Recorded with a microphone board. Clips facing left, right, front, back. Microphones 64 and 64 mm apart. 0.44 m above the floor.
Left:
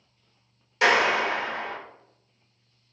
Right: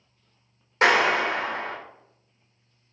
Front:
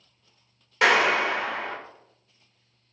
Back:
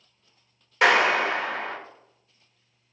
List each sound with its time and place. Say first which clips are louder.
0.8 s a clap: right 1 dB, back 1 dB; 90° right, 1.3 m